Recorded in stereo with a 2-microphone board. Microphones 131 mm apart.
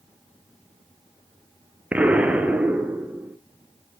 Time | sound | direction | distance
1.9 | an explosion | 10° right (ahead or behind) | 1.2 m